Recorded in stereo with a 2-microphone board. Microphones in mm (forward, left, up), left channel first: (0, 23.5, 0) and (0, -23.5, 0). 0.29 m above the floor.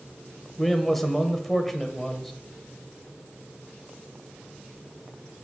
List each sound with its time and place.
0.6 s a man speaking: 5° left (ahead or behind), 0.9 m